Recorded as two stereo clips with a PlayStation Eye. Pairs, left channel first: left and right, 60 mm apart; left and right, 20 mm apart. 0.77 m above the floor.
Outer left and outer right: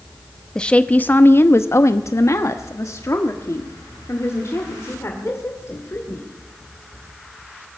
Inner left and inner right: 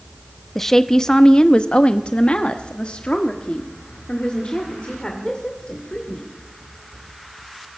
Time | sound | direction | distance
0.6 | a woman speaking | 15° left (ahead or behind) | 0.7 m